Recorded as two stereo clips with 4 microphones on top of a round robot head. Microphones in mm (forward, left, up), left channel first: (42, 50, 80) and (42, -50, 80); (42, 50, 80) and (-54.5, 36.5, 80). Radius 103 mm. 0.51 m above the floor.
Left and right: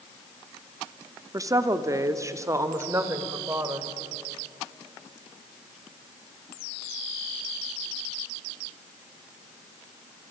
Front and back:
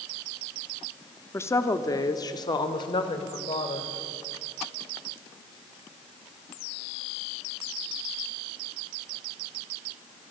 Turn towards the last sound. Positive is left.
turn(degrees=-25)